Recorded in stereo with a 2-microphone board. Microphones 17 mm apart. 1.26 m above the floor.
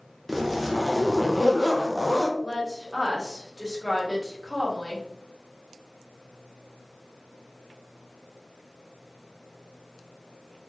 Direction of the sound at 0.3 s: 10° right (ahead or behind).